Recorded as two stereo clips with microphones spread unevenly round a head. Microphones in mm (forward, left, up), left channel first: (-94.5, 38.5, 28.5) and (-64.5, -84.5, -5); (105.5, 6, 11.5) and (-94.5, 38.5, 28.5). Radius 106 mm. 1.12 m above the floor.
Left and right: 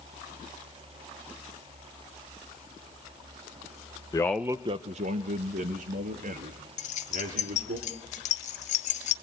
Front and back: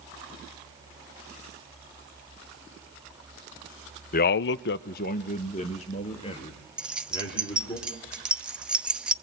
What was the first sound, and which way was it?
A man speaking, 30° left.